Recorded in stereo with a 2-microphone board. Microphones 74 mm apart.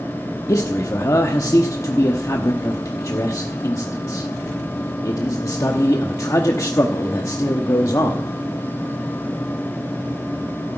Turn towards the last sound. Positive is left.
turn(degrees=50)  # may be behind; listen again after turning